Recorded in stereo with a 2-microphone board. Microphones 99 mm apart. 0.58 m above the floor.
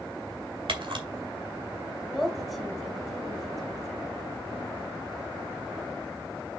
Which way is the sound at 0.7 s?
65° right (ahead or behind).